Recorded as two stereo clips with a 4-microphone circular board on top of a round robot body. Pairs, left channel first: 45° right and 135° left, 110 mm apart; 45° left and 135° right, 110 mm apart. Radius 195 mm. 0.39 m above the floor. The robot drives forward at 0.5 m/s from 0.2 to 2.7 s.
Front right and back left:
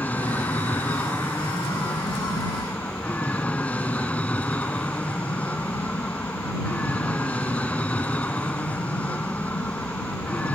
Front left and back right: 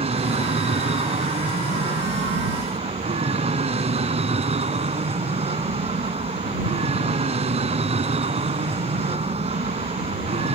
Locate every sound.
0.0 s an aircraft: 120° right